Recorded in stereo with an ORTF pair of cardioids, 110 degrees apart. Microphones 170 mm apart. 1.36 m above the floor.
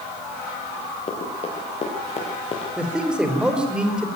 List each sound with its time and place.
1.1 s running footsteps: 35° left, 8 m
2.8 s a man speaking: 5° right, 5 m